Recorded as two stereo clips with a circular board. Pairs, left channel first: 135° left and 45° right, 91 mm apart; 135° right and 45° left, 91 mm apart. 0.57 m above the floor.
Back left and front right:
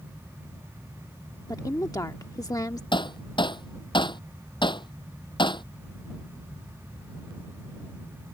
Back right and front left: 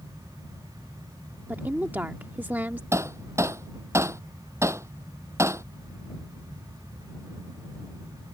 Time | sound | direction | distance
1.5 | a woman speaking | 110° left | ?
2.9 | hammering | 105° left | ?